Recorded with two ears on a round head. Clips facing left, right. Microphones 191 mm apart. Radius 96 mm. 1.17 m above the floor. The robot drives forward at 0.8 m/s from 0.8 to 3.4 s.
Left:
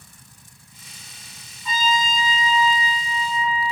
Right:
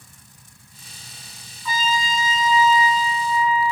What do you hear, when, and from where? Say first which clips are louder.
1.6 s a trumpet: left 1 dB; 30° left (ahead or behind), 2.5 m; by 3.7 s 20° left (ahead or behind), 3.5 m